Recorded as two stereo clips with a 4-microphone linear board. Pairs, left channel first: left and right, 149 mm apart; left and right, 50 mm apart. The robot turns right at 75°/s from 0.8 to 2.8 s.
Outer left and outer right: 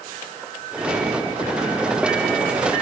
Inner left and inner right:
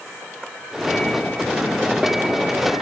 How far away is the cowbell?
No cowbell in this recording.